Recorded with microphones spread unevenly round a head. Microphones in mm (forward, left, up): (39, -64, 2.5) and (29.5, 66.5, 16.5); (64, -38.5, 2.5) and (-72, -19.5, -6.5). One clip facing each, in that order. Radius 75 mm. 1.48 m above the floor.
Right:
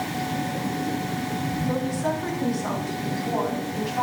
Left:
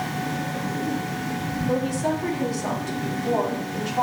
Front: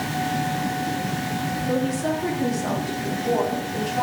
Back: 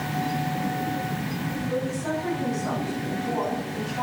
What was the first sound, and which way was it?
A woman speaking, 25° left.